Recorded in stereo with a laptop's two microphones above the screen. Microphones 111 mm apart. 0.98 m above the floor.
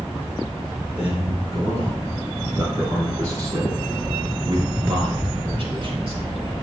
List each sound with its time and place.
1.0 s a man speaking: 15° right (ahead or behind), 4 m; by 6.5 s 60° right (ahead or behind), 3.5 m